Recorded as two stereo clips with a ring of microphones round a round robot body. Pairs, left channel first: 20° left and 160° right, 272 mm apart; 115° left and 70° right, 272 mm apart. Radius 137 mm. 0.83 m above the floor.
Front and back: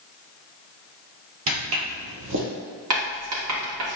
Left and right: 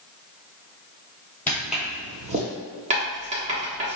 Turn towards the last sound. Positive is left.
turn(degrees=-130)